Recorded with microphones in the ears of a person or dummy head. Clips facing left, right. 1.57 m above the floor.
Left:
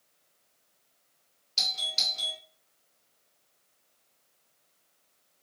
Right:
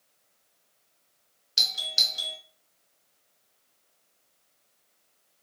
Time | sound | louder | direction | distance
1.6 | a doorbell | even | 20° right (ahead or behind) | 0.9 m